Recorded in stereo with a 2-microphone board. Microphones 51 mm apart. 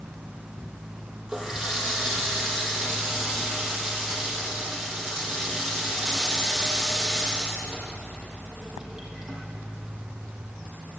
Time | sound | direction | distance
1.3 | a running tap | 15° right (ahead or behind) | 6 m